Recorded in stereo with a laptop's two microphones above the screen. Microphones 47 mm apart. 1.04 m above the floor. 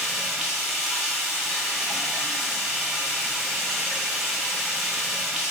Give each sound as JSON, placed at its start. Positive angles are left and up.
{"t": 0.0, "sound": "running water", "side_deg": -5, "distance_m": 6.0}